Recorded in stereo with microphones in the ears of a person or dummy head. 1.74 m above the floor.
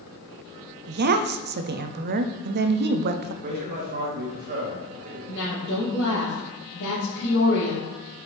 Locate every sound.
0.9 s a woman speaking: 60° right (ahead or behind), 0.5 m
3.4 s a man speaking: 60° right (ahead or behind), 1.8 m
5.3 s a woman speaking: 70° left (ahead or behind), 2.5 m